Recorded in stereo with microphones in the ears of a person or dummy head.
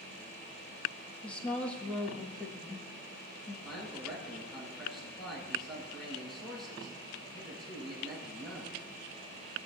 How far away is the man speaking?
About 5.5 m.